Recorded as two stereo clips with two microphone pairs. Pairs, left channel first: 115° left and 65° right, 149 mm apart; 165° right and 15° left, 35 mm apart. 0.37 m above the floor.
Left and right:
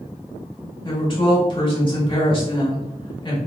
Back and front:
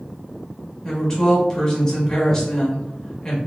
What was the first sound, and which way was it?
A woman speaking, 130° left.